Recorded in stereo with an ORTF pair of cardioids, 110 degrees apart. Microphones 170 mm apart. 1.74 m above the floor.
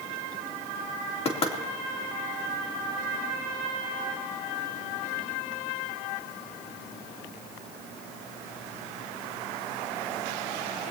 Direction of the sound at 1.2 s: 35° left.